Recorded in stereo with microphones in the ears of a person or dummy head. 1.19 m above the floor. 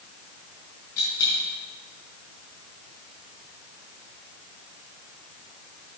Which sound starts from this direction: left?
A dropped coin, at 1.0 s.